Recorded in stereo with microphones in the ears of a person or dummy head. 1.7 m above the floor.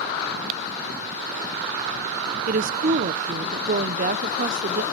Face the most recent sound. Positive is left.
turn(degrees=-45)  # may be behind; listen again after turning